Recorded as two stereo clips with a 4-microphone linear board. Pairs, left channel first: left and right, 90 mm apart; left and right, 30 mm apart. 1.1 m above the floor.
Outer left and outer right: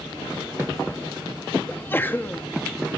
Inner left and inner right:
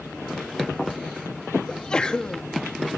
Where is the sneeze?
25° left (ahead or behind), 1.9 m.